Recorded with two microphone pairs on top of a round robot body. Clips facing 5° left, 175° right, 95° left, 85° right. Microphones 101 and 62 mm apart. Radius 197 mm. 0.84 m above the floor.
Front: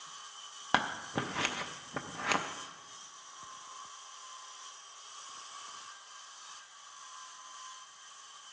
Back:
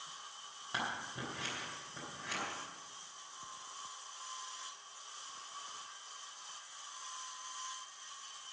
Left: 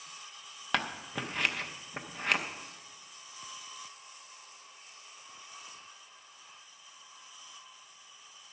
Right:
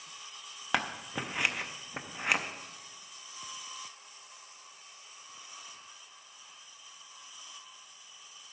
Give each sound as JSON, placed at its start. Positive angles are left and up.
{"t": 0.7, "sound": "scissors", "azimuth_deg": -5, "distance_m": 0.6}